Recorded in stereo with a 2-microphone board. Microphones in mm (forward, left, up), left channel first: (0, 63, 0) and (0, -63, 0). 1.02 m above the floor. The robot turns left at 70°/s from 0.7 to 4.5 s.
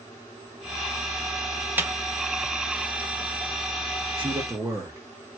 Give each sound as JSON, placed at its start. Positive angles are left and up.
{"t": 1.8, "sound": "a snare drum", "side_deg": -15, "distance_m": 0.6}
{"t": 4.2, "sound": "a man speaking", "side_deg": -40, "distance_m": 1.4}